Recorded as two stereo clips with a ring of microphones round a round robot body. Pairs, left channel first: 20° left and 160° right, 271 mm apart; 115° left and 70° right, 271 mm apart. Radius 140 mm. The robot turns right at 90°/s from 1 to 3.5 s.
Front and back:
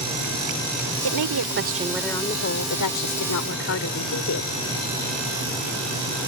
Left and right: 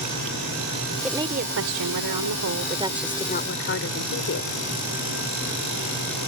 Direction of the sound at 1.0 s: 155° right.